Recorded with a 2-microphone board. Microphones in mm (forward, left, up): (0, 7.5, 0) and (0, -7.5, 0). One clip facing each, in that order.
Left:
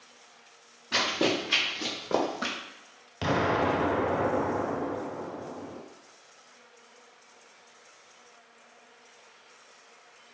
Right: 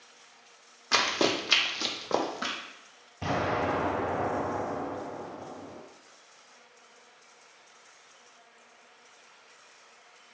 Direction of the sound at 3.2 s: 75° left (ahead or behind).